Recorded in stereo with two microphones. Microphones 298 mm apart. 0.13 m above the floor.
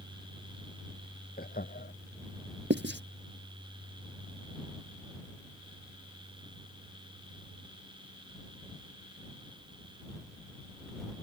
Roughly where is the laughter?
Left.